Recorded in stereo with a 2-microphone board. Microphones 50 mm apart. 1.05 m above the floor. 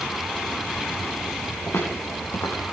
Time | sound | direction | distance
1.7 | footsteps | 75° left (ahead or behind) | 3.5 m